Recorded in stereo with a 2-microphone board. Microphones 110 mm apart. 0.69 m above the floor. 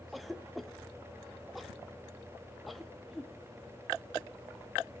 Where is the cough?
Centre (ahead or behind), 0.7 m.